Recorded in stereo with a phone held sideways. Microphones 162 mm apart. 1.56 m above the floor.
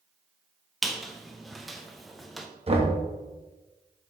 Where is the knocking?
40° right (ahead or behind), 1.1 m.